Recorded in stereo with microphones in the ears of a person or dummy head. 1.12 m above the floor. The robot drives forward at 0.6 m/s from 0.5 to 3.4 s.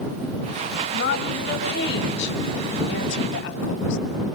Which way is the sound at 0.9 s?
60° left (ahead or behind).